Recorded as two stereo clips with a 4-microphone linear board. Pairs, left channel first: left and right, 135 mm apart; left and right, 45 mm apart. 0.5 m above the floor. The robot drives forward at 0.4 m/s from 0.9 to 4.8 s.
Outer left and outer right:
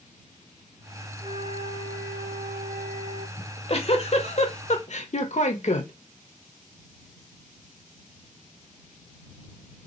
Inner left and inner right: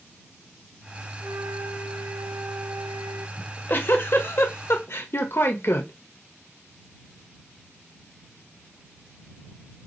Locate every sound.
1.2 s a flute: 45° right (ahead or behind), 1.0 m; by 3.3 s 55° right (ahead or behind), 0.9 m
3.4 s a giggle: 40° left (ahead or behind), 1.5 m; by 5.9 s 55° left (ahead or behind), 1.2 m